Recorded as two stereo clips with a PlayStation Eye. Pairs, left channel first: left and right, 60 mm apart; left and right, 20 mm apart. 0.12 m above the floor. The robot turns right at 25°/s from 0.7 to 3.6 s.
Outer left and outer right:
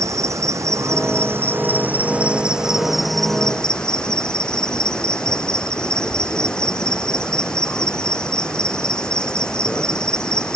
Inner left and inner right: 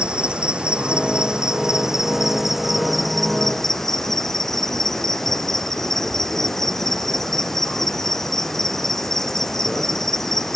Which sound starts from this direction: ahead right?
An insect, at 0.0 s.